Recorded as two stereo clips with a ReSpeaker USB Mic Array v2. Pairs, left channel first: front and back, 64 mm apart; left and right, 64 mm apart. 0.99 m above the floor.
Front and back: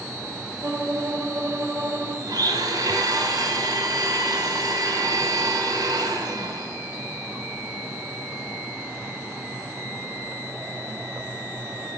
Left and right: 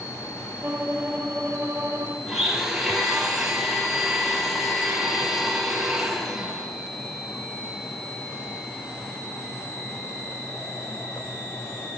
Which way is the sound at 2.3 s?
175° right.